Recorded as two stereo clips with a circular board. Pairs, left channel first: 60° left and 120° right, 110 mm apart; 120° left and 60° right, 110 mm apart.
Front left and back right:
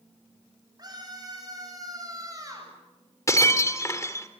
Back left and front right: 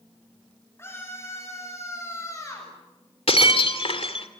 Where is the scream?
175° right, 10 m; by 2.7 s straight behind, 9 m.